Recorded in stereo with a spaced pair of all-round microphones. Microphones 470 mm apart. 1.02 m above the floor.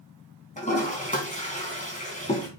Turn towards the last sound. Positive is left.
turn(degrees=15)  # may be behind; listen again after turning